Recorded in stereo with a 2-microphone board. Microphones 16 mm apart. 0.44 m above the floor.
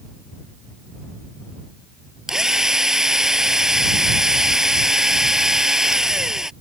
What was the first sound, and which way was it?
A drill, 30° right (ahead or behind).